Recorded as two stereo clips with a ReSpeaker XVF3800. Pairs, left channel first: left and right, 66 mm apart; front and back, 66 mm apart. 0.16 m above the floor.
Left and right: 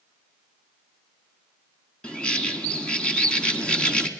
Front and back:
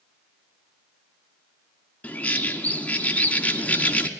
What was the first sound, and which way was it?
A bird, 35° left.